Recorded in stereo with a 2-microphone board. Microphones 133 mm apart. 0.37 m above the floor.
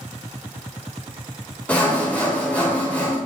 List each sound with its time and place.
1.7 s sawing: 10° left (ahead or behind), 1.2 m